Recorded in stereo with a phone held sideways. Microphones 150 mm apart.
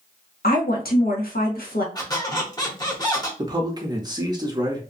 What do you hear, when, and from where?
0.4 s a woman speaking: 80° left, 1.0 m
1.9 s a squeak: 25° left (ahead or behind), 1.0 m
3.4 s a man speaking: 30° right (ahead or behind), 0.6 m